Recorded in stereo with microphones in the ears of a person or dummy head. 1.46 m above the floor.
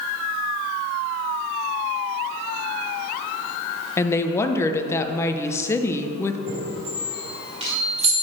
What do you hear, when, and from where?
4.0 s a woman speaking: 15° left (ahead or behind), 1.0 m
6.5 s a chime: 30° right (ahead or behind), 4 m